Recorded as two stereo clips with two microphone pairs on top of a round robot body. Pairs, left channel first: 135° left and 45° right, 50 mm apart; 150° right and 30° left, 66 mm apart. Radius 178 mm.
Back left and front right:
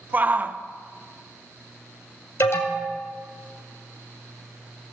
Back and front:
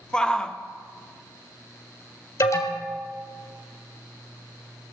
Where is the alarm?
170° left, 2 m.